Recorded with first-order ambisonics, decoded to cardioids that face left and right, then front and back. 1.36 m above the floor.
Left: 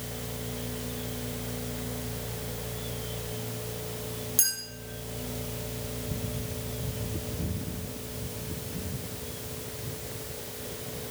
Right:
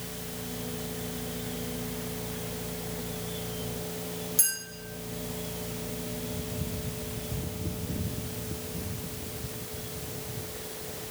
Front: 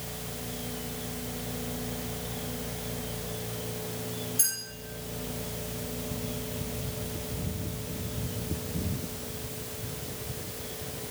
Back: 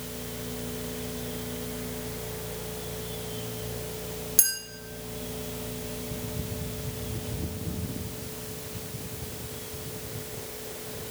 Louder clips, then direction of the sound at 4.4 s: Left 2 dB, back 5 dB; 170° left.